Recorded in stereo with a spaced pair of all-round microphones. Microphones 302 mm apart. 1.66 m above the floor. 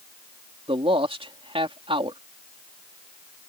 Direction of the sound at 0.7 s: 20° right (ahead or behind).